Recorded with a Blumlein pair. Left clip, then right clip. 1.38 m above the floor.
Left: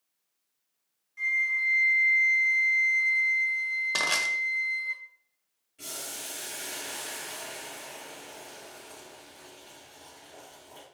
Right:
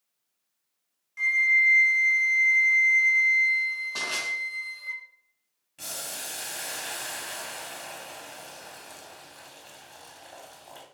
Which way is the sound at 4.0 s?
50° left.